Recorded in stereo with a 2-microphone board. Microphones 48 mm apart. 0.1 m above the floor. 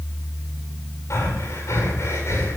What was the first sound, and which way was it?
Breathing, 80° left.